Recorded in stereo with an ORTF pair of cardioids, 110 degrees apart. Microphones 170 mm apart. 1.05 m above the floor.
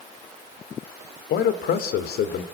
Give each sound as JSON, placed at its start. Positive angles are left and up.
{"t": 1.3, "sound": "a man speaking", "azimuth_deg": 70, "distance_m": 3.0}